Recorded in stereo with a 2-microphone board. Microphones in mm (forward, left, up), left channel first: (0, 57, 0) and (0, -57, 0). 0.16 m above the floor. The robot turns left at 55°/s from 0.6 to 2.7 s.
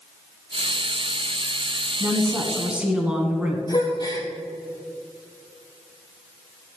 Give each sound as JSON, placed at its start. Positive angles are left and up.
{"t": 2.0, "sound": "a woman speaking", "side_deg": -25, "distance_m": 1.2}
{"t": 3.7, "sound": "a gasp", "side_deg": 35, "distance_m": 1.4}